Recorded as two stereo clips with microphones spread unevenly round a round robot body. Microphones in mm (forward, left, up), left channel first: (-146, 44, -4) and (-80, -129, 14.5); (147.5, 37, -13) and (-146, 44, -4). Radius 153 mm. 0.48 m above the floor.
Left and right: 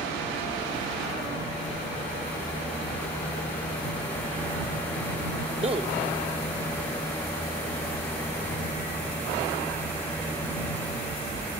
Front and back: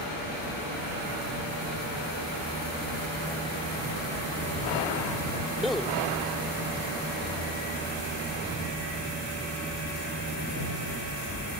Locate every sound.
5.6 s a man speaking: 90° right